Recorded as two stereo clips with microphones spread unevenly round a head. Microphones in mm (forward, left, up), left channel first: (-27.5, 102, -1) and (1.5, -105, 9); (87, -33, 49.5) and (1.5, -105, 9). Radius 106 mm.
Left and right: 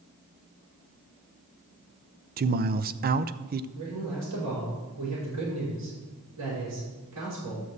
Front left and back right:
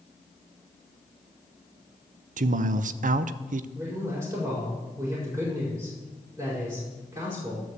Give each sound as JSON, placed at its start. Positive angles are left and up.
{"t": 2.4, "sound": "a man speaking", "azimuth_deg": -130, "distance_m": 0.6}
{"t": 3.8, "sound": "a man speaking", "azimuth_deg": -80, "distance_m": 5.0}